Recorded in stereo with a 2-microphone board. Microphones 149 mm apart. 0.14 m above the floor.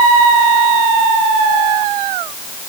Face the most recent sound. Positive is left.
No sound to turn to.